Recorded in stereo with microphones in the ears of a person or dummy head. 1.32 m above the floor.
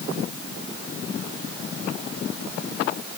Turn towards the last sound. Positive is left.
No sound to turn to.